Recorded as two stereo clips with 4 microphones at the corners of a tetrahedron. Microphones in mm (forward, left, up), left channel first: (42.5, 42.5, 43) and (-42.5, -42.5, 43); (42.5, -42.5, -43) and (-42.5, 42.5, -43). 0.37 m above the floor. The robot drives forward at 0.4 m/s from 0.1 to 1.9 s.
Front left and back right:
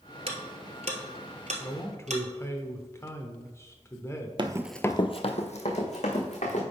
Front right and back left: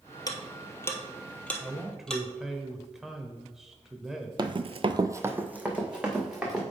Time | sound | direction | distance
0.3 | ticking | 100° right | 1.1 m
1.6 | a man speaking | 40° left | 0.9 m
4.4 | running footsteps | 175° right | 0.6 m